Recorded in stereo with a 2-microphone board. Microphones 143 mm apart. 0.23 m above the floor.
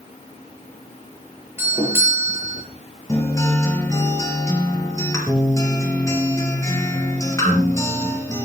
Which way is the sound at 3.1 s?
20° left (ahead or behind).